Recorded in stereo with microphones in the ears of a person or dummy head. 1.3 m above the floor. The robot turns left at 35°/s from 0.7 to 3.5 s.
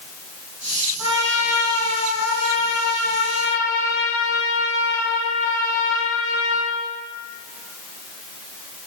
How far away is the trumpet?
About 2 m.